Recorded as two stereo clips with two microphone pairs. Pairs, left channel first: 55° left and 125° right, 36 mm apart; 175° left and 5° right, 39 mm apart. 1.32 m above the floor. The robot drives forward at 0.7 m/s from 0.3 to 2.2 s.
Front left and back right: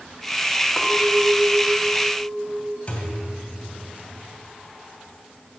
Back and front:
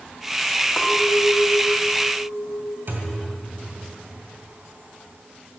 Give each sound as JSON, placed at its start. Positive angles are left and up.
{"t": 0.8, "sound": "a clink", "azimuth_deg": 110, "distance_m": 2.0}
{"t": 2.9, "sound": "a thud", "azimuth_deg": 5, "distance_m": 2.5}